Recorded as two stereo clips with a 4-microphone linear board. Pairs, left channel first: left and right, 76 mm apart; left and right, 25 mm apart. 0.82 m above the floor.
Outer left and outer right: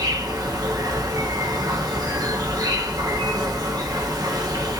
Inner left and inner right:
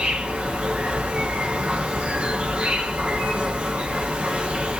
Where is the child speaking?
No child speaking in this recording.